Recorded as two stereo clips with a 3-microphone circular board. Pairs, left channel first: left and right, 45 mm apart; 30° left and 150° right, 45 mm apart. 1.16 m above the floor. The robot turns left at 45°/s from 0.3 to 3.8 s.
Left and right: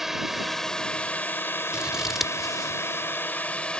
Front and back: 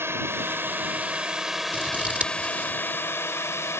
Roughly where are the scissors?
Behind right.